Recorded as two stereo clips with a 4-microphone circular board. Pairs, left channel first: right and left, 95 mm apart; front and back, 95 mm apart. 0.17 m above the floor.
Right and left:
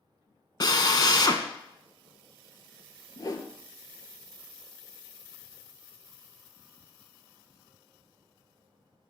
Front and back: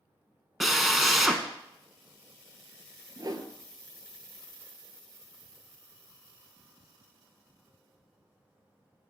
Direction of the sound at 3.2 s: 140° right.